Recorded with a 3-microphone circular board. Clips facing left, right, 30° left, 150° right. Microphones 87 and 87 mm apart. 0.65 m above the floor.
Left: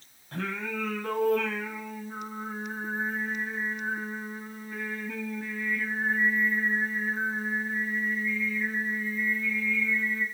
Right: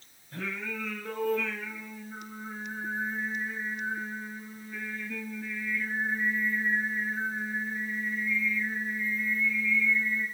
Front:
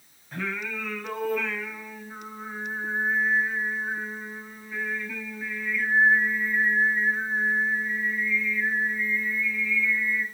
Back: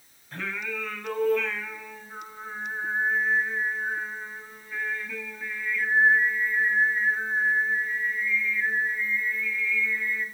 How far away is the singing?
About 3.5 m.